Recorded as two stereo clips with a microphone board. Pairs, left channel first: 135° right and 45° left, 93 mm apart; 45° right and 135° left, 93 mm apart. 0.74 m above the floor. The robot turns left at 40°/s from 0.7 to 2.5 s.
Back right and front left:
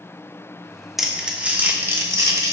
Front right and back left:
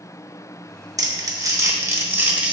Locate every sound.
1.0 s crumpling: 130° left, 1.0 m; by 2.5 s 70° left, 1.0 m